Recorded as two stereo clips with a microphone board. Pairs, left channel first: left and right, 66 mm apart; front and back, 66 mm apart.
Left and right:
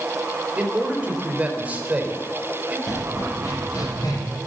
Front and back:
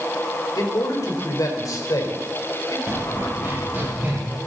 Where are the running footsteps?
125° left, 9.5 m; by 4.2 s 115° left, 9.5 m.